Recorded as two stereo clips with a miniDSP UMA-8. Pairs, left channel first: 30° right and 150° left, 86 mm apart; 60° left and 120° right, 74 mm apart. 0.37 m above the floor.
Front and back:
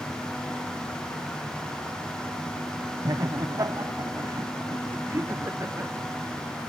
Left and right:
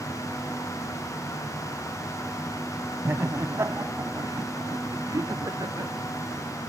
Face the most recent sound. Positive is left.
turn(degrees=-150)